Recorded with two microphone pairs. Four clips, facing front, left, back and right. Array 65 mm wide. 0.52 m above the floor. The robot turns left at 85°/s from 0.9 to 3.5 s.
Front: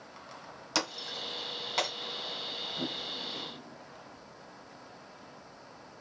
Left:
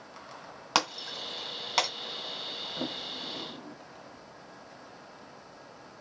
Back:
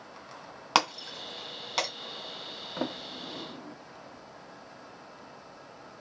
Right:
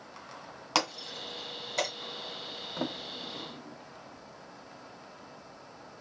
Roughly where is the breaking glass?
Behind.